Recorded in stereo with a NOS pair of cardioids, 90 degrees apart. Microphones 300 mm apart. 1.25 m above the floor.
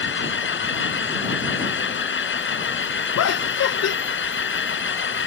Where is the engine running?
35° left.